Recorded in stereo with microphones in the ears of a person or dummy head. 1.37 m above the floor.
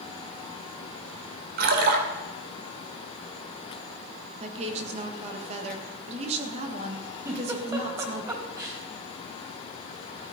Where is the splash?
55° right (ahead or behind), 2 m.